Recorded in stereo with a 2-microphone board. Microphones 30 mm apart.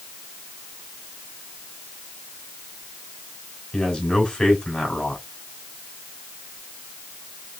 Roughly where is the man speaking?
Left.